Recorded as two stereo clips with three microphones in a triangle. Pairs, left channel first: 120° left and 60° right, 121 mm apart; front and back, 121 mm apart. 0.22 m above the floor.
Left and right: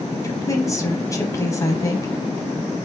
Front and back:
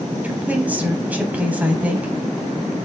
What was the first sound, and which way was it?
A woman speaking, 120° left.